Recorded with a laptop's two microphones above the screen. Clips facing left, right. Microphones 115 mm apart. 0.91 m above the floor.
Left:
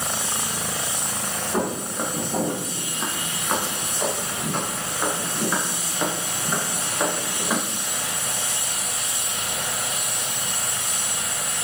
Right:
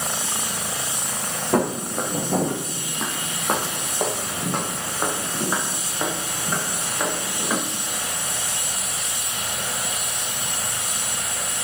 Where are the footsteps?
75° right (ahead or behind), 3.5 m; by 7.6 s 5° left (ahead or behind), 3.5 m.